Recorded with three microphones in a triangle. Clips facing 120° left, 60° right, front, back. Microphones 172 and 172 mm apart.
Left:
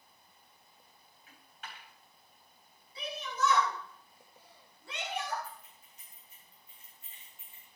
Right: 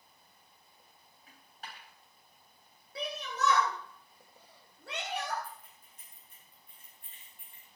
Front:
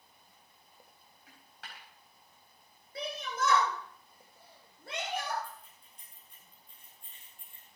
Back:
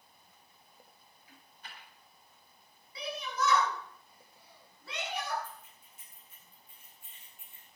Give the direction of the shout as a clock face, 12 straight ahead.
1 o'clock.